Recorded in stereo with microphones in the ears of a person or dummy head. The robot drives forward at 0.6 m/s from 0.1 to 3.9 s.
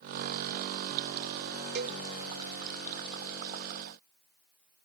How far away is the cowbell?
About 0.5 m.